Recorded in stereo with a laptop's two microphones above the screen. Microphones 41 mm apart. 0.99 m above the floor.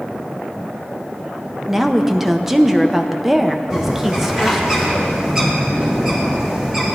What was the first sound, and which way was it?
A woman speaking, 10° right (ahead or behind).